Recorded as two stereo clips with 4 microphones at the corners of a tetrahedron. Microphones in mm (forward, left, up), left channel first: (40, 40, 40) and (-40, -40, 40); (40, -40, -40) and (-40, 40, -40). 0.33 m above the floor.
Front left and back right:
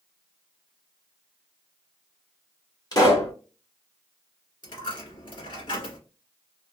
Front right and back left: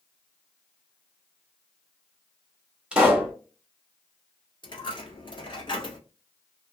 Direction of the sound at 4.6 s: Straight ahead.